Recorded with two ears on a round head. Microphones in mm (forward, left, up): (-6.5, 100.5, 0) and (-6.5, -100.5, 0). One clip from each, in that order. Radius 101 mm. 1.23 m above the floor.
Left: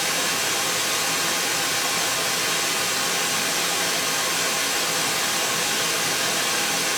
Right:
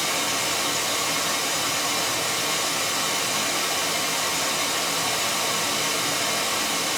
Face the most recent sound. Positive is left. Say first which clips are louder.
# left 1 dB
turn(degrees=50)  # may be behind; listen again after turning